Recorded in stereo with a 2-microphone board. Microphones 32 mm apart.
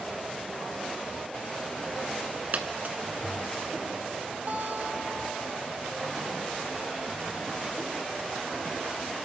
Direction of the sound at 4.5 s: 55° right (ahead or behind).